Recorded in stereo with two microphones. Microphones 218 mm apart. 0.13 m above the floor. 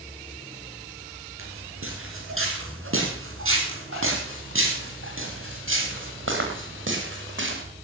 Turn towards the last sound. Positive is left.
turn(degrees=-70)  # may be behind; listen again after turning